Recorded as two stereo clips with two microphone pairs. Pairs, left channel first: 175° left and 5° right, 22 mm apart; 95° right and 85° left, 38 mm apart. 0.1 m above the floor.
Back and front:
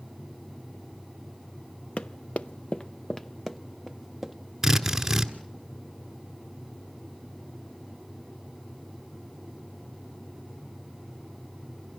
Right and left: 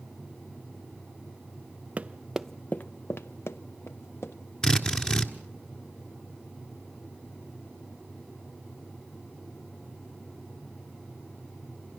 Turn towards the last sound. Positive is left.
turn(degrees=-60)